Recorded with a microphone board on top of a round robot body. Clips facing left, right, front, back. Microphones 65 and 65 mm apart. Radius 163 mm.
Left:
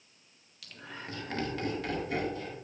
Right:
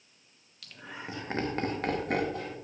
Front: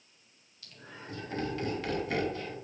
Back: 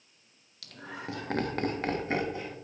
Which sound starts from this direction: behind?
Laughter, at 0.6 s.